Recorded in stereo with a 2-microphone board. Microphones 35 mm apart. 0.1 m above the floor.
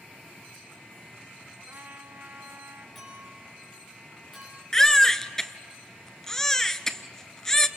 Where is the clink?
Centre (ahead or behind), 8.5 m.